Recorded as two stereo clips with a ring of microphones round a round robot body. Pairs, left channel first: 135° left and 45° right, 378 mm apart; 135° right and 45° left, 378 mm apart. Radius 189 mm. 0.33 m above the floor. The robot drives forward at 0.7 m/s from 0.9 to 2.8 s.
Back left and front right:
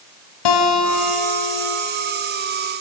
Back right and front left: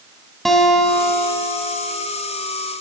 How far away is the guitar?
About 2.0 m.